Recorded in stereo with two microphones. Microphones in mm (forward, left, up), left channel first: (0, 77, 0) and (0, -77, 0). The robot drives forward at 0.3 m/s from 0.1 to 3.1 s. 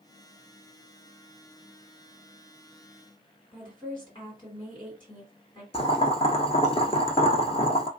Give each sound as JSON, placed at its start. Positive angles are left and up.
{"t": 3.5, "sound": "a woman speaking", "side_deg": 30, "distance_m": 2.5}
{"t": 5.7, "sound": "boiling", "side_deg": 40, "distance_m": 0.6}